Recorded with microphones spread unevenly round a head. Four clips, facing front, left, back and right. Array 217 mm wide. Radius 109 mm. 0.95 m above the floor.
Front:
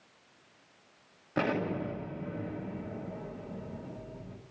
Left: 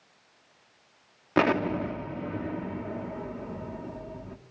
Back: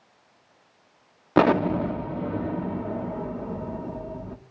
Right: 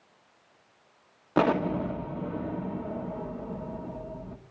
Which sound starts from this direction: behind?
An explosion, at 1.4 s.